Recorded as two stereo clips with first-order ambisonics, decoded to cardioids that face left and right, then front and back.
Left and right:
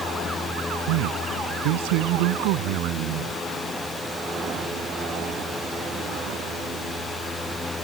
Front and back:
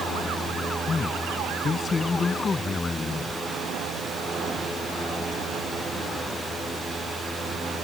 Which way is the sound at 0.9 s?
75° right.